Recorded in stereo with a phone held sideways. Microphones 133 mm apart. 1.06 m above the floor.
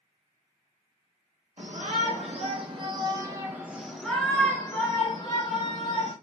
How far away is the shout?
About 1.4 m.